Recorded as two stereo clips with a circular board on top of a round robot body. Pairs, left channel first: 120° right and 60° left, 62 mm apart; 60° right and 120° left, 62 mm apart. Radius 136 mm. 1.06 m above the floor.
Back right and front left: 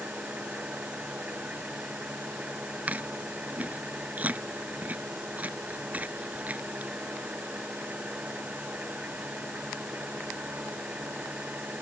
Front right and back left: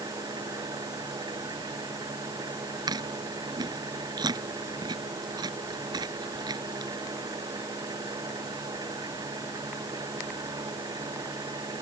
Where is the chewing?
130° left.